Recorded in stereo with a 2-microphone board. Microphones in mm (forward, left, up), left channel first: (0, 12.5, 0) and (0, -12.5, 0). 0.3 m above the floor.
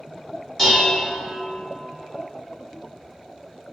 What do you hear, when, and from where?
0.6 s dishes clattering: 15° left (ahead or behind), 1.2 m